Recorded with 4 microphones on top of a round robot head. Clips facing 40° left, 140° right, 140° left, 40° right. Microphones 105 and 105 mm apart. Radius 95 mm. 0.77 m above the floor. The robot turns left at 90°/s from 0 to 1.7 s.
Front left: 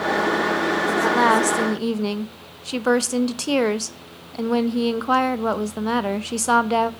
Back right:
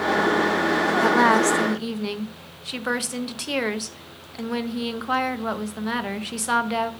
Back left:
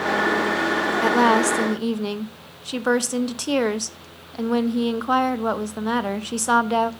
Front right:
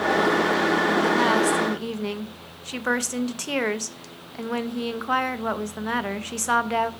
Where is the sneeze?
No sneeze in this recording.